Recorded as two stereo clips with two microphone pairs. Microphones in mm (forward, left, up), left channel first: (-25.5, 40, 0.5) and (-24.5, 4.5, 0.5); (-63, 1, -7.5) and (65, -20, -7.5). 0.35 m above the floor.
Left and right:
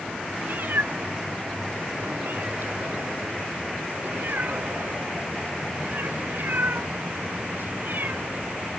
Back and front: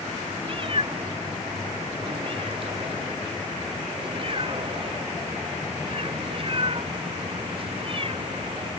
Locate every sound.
0.4 s a cat meowing: 55° right